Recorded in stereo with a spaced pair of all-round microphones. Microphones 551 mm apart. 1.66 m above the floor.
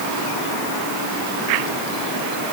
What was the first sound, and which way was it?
Only background noise.